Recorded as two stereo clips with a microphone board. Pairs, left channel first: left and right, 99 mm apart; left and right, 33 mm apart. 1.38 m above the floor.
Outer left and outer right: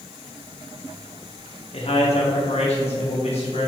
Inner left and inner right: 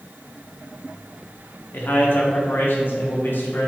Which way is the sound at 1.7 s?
70° left (ahead or behind).